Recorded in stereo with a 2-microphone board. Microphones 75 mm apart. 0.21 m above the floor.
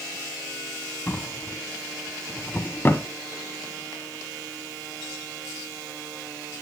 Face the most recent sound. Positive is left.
turn(degrees=30)  # may be behind; listen again after turning